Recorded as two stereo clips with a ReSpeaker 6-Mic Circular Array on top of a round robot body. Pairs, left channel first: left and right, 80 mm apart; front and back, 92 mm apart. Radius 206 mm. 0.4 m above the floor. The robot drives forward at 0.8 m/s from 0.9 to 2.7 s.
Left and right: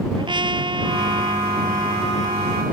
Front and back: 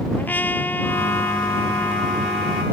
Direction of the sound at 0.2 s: 75° right.